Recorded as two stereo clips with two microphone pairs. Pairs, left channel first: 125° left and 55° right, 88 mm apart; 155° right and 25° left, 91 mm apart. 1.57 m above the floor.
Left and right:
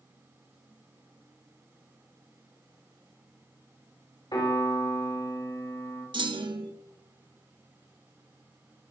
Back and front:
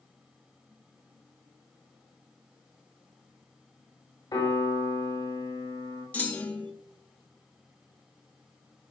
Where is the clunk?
80° right, 1.5 m.